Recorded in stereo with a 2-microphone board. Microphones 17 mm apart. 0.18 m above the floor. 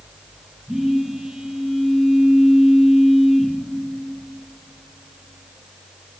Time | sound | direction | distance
0.7 | a phone buzzing | 60° right (ahead or behind) | 2.5 m